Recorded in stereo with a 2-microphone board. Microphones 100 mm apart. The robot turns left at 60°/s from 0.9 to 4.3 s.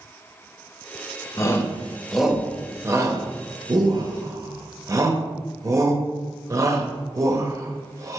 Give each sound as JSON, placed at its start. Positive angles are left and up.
{"t": 1.4, "sound": "a shout", "side_deg": 30, "distance_m": 0.7}